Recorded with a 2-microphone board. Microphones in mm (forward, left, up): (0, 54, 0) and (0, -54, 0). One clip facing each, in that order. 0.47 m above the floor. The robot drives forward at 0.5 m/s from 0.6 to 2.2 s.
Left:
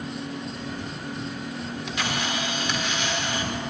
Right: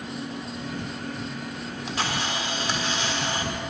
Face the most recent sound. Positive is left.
turn(degrees=-35)  # may be behind; listen again after turning